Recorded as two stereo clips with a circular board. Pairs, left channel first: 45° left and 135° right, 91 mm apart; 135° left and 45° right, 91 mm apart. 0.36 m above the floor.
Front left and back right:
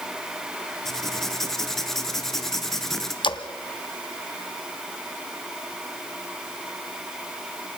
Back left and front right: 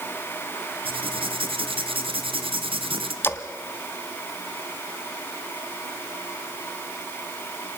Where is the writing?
40° right, 1.6 m.